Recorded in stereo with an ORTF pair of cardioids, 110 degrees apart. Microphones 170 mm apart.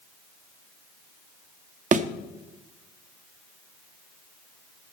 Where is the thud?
50° right, 0.9 m.